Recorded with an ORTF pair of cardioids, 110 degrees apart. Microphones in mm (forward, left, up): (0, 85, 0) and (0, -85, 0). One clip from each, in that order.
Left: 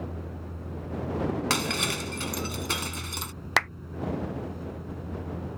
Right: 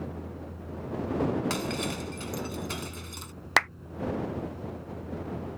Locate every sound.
0.0 s a vehicle: 30° left
1.5 s breaking glass: 50° left
3.6 s a clap: straight ahead